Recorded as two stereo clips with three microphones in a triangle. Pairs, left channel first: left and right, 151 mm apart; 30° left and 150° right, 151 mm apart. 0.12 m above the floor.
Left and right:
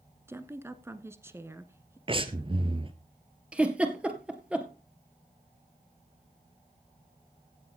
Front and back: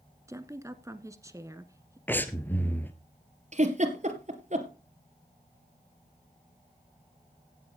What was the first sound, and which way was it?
A woman speaking, 130° right.